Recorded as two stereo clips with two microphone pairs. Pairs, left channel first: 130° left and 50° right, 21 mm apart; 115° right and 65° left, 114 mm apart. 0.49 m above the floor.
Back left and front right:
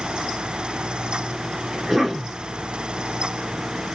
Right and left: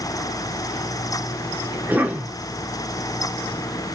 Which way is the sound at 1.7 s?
5° right.